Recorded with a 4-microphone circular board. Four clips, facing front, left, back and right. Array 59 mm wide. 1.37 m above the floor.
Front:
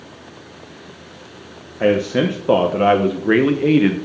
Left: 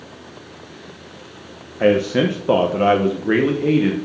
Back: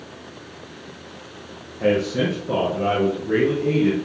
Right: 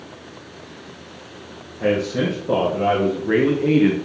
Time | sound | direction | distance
1.8 | a man speaking | 50° left | 1.4 m